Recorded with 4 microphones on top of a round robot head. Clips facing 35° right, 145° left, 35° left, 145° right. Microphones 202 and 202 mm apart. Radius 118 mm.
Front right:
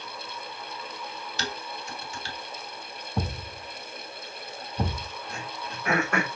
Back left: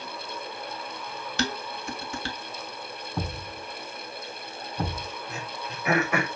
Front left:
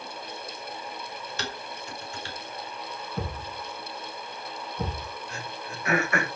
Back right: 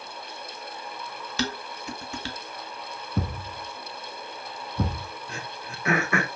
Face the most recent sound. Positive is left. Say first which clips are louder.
# back left 1 dB, front left 1 dB
turn(degrees=-130)